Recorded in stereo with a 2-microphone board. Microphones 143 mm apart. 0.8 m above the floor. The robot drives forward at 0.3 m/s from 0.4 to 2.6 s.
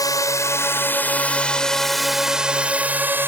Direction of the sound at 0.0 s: 25° left (ahead or behind).